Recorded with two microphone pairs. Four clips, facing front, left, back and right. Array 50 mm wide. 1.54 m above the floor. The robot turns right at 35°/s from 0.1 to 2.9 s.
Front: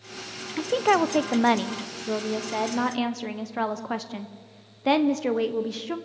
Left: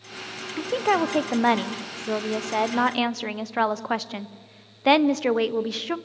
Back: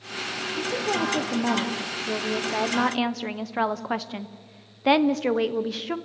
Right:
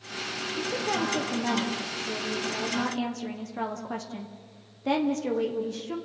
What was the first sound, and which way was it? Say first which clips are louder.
A woman speaking: left 7 dB, front 6 dB; 30° left.